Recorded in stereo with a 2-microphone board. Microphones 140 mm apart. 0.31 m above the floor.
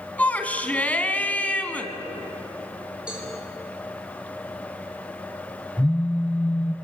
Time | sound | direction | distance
0.2 | a shout | 10° left (ahead or behind) | 2 m
3.1 | a cowbell | 5° right (ahead or behind) | 6 m
5.8 | a phone buzzing | 10° left (ahead or behind) | 0.7 m